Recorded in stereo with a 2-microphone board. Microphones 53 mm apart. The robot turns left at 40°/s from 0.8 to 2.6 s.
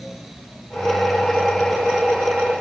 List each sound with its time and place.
Only background noise.